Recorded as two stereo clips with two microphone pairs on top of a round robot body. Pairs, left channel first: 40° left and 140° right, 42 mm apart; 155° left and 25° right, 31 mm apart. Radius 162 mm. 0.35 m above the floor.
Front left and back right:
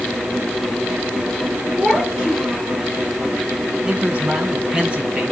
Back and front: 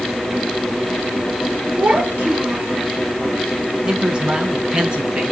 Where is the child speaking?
70° right, 6 m; by 2.8 s 80° right, 5.5 m.